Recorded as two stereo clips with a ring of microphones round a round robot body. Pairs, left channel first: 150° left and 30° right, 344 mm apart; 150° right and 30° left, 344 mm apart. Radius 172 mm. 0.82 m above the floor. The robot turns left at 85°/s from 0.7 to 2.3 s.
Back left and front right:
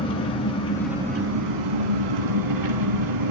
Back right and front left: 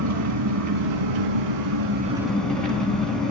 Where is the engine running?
75° left, 4.5 m; by 3.3 s 60° right, 4.5 m.